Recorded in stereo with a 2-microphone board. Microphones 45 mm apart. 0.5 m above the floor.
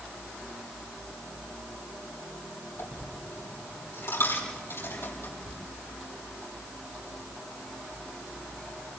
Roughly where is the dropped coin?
Left.